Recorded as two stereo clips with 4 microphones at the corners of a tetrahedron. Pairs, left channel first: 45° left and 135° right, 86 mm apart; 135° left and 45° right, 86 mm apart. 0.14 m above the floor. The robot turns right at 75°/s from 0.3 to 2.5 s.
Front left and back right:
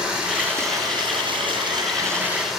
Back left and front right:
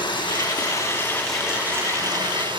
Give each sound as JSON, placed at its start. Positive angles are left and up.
{"t": 0.0, "sound": "running water", "azimuth_deg": 145, "distance_m": 7.0}